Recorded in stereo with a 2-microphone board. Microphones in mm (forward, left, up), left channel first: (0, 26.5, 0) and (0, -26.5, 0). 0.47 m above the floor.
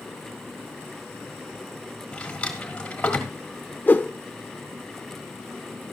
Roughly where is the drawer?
Left.